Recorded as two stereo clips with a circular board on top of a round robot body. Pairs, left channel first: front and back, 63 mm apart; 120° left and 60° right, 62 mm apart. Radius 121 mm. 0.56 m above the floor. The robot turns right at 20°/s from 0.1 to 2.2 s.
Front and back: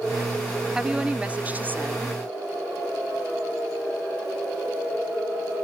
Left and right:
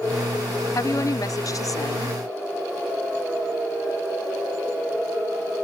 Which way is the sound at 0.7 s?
105° left.